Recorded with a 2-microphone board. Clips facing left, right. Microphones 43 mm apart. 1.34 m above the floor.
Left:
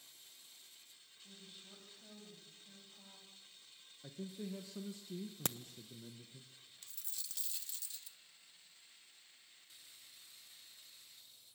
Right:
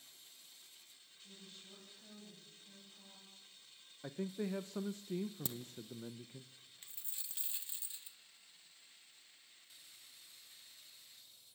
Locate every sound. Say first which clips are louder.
1.2 s a woman speaking: even; 15° left (ahead or behind), 9.5 m
4.0 s a man speaking: right 6 dB; 45° right (ahead or behind), 0.7 m
5.5 s a crack: left 4 dB; 65° left (ahead or behind), 0.7 m
6.8 s a dropped coin: left 1 dB; 25° right (ahead or behind), 0.9 m